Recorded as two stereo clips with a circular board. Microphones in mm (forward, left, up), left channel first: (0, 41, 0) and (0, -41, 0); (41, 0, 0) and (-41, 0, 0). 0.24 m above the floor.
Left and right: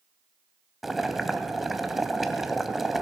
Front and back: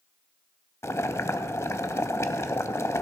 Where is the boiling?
5° right, 0.7 m.